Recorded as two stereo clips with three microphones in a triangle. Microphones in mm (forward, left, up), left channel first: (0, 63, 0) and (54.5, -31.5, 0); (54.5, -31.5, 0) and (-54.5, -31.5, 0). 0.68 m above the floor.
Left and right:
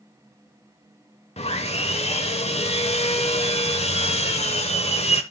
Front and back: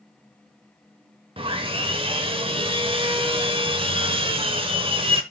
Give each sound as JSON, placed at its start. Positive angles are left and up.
{"t": 1.4, "sound": "sawing", "azimuth_deg": 145, "distance_m": 1.0}